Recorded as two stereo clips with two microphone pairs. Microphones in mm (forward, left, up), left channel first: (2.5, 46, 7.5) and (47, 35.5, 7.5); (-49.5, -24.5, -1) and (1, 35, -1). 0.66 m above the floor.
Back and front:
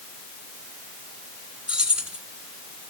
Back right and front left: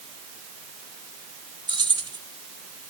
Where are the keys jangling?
65° left, 3 m.